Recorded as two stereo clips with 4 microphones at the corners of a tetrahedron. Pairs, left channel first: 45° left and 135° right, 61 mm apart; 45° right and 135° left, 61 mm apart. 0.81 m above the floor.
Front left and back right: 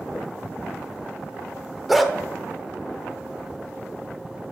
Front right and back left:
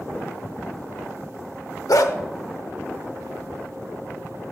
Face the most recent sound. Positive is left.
turn(degrees=-45)